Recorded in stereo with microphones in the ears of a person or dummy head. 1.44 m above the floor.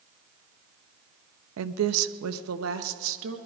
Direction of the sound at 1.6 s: 70° right (ahead or behind).